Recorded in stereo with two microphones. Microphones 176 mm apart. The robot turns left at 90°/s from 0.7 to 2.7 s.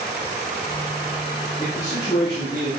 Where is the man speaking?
140° left, 3 m; by 2.7 s 40° left, 3 m.